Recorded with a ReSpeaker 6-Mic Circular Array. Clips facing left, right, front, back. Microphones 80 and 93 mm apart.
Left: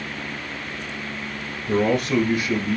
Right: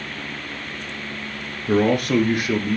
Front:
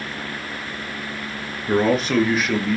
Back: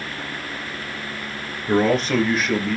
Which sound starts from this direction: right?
A man speaking, at 1.7 s.